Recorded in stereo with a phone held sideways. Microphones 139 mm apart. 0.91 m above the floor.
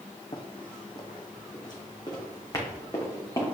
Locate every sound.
0.3 s running footsteps: 40° left (ahead or behind), 1.5 m; by 3.5 s 20° left (ahead or behind), 3 m